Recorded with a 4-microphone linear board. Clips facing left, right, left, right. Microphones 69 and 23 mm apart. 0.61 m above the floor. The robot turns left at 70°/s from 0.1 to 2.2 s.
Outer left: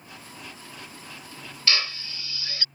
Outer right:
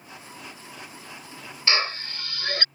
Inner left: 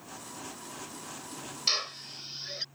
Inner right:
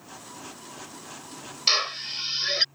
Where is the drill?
30° right; by 2.6 s 65° right.